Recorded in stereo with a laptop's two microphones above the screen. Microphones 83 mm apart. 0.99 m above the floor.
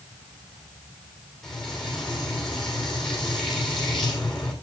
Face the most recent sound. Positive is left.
turn(degrees=5)  # may be behind; listen again after turning